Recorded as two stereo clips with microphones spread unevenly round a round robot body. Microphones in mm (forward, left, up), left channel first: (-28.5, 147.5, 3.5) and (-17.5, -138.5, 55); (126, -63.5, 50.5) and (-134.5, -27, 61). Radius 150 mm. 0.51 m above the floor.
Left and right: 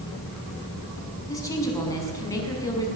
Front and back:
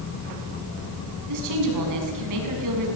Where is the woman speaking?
170° left, 6 m.